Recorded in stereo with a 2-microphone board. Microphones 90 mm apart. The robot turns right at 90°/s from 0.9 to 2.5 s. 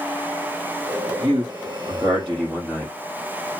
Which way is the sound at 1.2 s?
120° right.